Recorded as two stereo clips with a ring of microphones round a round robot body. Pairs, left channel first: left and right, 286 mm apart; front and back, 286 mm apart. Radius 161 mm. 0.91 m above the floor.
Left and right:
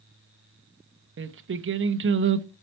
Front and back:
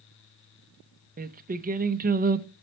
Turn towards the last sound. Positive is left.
turn(degrees=-125)